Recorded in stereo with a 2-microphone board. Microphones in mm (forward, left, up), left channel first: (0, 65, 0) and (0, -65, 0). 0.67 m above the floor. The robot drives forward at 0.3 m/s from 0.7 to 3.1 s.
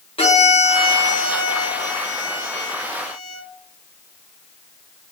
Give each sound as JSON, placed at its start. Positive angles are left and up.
{"t": 0.2, "sound": "a violin", "side_deg": 45, "distance_m": 0.8}